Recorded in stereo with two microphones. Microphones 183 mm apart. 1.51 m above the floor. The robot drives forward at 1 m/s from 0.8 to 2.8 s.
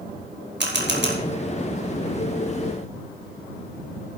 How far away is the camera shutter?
About 2 m.